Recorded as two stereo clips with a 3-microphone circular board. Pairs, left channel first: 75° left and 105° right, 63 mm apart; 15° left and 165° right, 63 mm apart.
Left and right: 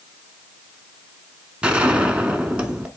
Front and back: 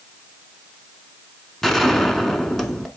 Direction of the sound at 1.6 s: 65° right.